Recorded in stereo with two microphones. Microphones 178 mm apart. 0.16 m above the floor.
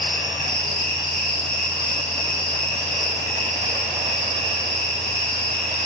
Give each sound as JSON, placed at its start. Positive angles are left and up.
{"t": 0.0, "sound": "an insect", "side_deg": 60, "distance_m": 2.5}